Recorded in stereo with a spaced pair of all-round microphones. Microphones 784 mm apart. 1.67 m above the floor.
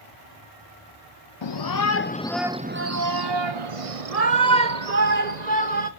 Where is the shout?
40° left (ahead or behind), 0.8 m; by 5.9 s 65° right (ahead or behind), 1.9 m.